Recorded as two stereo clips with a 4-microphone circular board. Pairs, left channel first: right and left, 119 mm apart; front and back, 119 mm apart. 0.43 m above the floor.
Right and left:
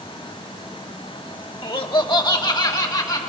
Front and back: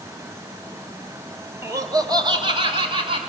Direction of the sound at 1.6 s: 120° right.